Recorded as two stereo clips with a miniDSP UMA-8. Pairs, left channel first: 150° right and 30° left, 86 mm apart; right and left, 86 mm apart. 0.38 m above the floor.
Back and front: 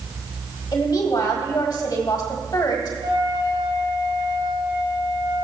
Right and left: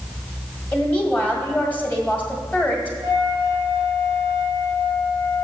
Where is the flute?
20° left, 4 m.